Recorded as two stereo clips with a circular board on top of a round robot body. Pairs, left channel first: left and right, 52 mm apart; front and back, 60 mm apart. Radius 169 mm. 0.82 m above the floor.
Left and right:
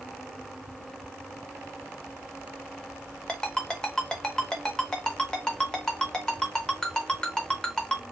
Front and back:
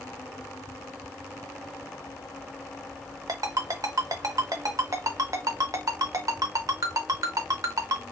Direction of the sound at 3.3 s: 165° left.